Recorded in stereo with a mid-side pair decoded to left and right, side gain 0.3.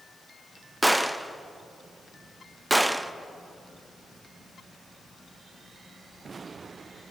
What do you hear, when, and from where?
0.8 s a gunshot: 10° right, 0.7 m